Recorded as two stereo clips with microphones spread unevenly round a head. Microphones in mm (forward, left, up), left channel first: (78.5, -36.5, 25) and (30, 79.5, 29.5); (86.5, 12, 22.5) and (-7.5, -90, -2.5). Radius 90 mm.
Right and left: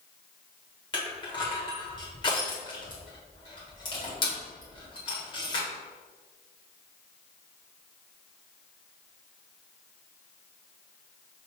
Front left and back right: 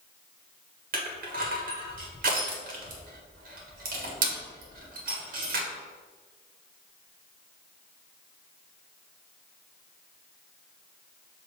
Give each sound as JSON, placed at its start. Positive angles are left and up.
{"t": 0.9, "sound": "crushing", "azimuth_deg": -125, "distance_m": 1.5}